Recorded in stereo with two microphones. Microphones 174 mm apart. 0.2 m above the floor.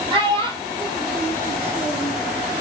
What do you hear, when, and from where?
0.1 s a child speaking: 30° right (ahead or behind), 4 m; by 2.1 s centre (ahead or behind), 1.8 m